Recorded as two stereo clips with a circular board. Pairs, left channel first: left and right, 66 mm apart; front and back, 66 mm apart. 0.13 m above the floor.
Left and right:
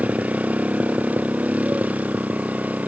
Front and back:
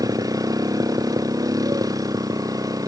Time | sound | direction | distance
0.0 | a motorcycle | 160° right | ?